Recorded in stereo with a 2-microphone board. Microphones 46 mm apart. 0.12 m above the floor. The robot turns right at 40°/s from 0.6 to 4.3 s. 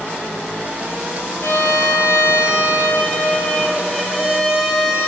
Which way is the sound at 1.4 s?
70° left.